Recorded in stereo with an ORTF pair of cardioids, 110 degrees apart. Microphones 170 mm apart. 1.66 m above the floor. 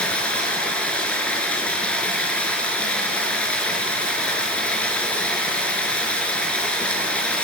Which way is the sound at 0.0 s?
5° left.